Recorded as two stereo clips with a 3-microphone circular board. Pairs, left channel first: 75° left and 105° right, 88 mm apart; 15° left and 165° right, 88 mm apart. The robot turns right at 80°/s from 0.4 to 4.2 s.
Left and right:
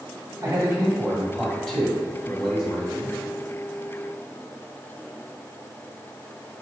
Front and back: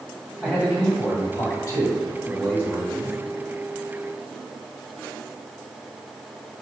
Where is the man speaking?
105° right, 1.9 m; by 3.1 s 115° left, 1.9 m.